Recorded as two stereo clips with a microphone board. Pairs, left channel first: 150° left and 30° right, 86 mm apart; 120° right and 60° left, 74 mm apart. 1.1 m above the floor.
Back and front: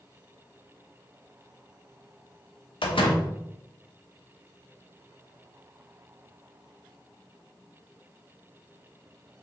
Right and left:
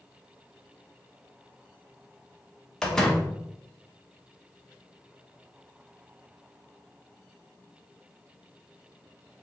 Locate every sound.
2.8 s a door slam: 160° left, 0.8 m